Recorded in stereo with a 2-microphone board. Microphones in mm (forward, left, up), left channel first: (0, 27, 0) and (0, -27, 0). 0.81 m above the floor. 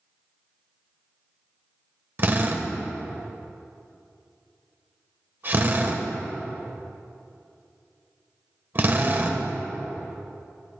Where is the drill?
40° right (ahead or behind), 1.4 m.